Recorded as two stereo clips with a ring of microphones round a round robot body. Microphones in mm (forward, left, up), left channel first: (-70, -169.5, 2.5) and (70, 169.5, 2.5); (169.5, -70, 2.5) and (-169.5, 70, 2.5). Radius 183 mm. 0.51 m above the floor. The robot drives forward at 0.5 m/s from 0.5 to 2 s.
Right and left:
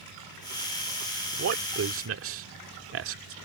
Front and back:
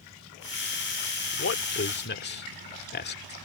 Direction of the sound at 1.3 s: 25° left.